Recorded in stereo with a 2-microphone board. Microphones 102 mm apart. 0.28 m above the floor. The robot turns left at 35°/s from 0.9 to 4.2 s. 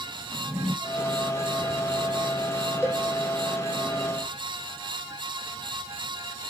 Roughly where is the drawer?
Centre.